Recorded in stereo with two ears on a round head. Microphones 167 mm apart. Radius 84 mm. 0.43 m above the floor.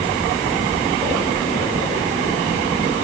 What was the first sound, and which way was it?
Only background noise.